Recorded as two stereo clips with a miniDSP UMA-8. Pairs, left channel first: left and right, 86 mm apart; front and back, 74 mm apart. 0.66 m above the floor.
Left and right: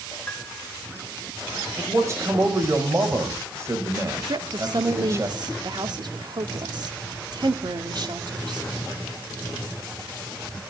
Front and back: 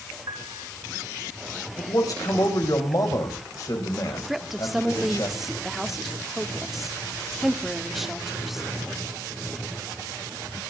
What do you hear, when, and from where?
0.3 s a piano: 165° left, 7 m
1.8 s a man speaking: 35° right, 4 m
4.3 s a woman speaking: 95° right, 1.6 m